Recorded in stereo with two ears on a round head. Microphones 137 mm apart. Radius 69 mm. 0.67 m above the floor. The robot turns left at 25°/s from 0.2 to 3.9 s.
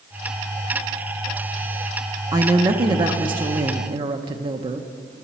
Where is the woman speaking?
50° right, 0.7 m; by 4.9 s 90° right, 0.7 m.